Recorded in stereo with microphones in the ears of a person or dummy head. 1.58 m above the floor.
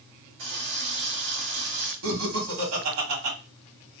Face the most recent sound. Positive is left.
turn(degrees=-75)  # may be behind; listen again after turning